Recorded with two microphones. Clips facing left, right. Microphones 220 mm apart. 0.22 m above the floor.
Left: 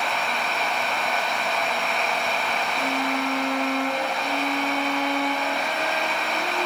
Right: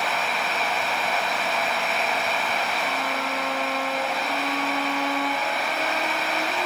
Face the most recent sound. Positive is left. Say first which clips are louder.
# left 2 dB
turn(degrees=25)  # may be behind; listen again after turning